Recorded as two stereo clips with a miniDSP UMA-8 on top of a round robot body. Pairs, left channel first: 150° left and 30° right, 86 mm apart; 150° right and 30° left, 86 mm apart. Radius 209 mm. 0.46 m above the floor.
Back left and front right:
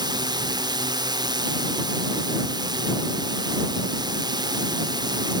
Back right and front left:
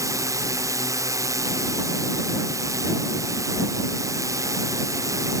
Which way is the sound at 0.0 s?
15° right.